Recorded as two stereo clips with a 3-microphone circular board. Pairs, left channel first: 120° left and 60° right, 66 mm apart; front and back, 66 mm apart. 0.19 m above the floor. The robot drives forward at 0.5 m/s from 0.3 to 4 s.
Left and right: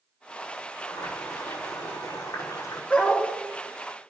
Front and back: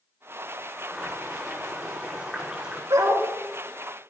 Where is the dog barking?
175° right, 4 m.